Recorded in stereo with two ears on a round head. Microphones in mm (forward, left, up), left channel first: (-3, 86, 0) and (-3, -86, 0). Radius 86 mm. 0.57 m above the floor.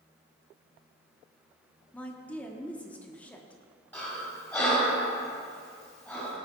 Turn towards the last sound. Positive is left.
turn(degrees=10)  # may be behind; listen again after turning